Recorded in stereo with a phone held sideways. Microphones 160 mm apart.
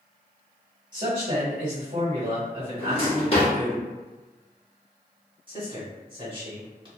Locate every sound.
0.9 s a man speaking: 50° right (ahead or behind), 1.4 m
2.8 s a drawer: 35° left (ahead or behind), 1.1 m
5.5 s a man speaking: 30° right (ahead or behind), 1.4 m